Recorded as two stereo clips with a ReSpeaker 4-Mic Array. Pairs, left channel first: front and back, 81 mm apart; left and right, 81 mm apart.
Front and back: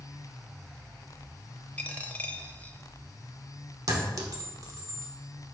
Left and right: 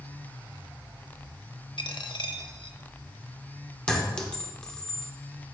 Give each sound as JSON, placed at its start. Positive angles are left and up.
{"t": 1.8, "sound": "a dropped coin", "azimuth_deg": 70, "distance_m": 0.6}
{"t": 3.9, "sound": "a clink", "azimuth_deg": 165, "distance_m": 1.0}